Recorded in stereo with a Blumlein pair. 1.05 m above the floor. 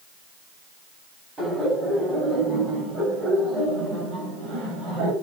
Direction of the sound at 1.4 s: 15° right.